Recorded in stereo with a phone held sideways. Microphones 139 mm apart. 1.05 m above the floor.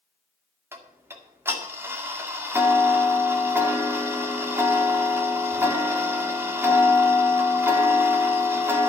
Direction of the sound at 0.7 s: 15° right (ahead or behind).